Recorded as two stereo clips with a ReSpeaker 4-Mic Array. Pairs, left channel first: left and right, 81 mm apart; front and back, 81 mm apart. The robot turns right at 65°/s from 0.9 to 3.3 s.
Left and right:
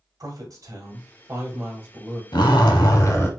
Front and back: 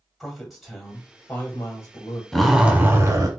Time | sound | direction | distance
0.2 | a man speaking | 90° right | 1.2 m
2.3 | a zipper | 85° left | 0.8 m